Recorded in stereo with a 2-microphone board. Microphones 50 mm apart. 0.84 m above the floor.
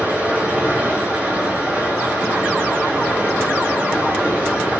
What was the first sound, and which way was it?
Running water, 35° right (ahead or behind).